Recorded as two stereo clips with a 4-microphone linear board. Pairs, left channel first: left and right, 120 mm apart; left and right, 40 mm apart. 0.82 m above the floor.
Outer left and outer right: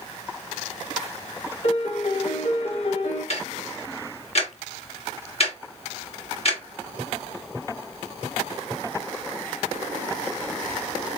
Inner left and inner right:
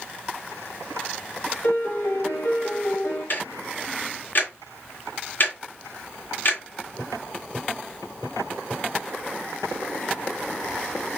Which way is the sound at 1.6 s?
65° left (ahead or behind).